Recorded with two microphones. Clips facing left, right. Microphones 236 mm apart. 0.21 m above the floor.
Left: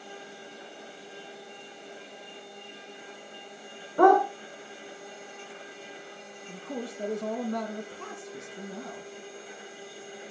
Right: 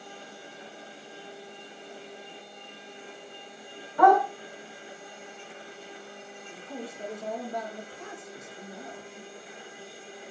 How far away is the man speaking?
About 5.5 m.